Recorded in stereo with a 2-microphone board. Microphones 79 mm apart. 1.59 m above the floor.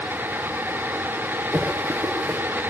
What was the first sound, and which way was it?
Running footsteps, 10° right (ahead or behind).